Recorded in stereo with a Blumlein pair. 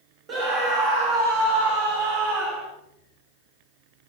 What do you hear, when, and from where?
0.3 s a scream: 25° right, 1.3 m; by 2.7 s 35° right, 2.5 m